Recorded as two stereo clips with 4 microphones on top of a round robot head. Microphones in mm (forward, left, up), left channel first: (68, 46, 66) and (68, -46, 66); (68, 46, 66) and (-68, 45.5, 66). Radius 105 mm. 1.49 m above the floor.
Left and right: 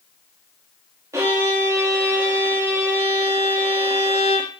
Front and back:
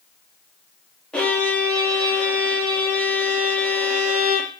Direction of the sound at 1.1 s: 80° right.